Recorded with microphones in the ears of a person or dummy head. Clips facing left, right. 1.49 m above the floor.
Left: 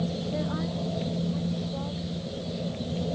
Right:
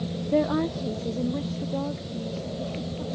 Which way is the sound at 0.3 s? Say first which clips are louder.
Right 7 dB; 70° right (ahead or behind).